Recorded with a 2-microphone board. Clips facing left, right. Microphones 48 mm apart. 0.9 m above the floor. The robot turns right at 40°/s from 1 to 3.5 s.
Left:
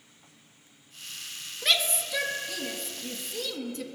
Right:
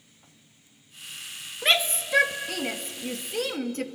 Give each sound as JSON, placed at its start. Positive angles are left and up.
{"t": 1.6, "sound": "a shout", "side_deg": -30, "distance_m": 1.7}